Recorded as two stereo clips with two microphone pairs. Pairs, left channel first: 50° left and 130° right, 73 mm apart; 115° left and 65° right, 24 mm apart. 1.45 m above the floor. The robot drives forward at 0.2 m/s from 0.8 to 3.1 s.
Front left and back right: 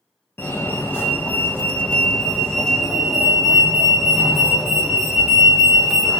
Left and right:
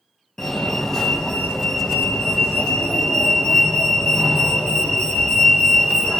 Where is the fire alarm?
55° left, 0.7 m; by 6.2 s 135° left, 0.7 m.